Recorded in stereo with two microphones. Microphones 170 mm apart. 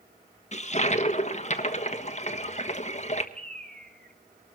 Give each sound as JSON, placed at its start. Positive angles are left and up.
{"t": 0.5, "sound": "a toilet flushing", "side_deg": 45, "distance_m": 1.4}
{"t": 3.4, "sound": "a bird", "side_deg": 5, "distance_m": 3.0}